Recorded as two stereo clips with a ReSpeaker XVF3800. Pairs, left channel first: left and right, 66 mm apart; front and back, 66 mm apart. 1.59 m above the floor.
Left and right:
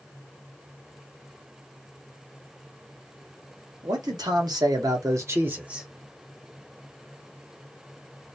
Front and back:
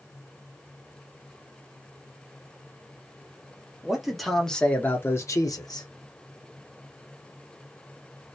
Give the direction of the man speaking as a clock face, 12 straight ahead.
3 o'clock.